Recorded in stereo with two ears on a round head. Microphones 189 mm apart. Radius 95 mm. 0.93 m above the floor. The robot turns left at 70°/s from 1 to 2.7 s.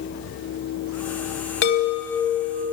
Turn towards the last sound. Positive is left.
turn(degrees=-25)